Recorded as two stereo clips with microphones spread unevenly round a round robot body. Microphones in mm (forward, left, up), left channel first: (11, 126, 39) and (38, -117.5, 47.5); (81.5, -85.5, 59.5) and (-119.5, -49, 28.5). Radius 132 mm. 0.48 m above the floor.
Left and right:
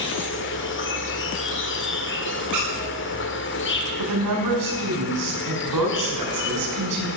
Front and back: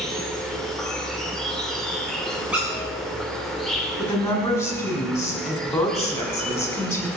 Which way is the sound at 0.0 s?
85° left.